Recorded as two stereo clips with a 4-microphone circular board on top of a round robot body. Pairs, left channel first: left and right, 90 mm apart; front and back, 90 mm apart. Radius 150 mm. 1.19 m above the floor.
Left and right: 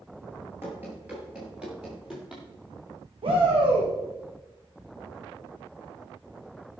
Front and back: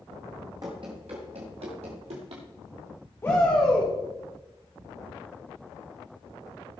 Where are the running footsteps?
145° right, 1.2 m; by 2.4 s 175° right, 2.5 m.